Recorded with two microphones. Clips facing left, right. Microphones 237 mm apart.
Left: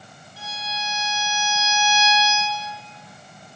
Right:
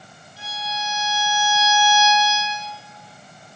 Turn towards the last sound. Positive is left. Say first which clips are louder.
# right 3 dB
turn(degrees=85)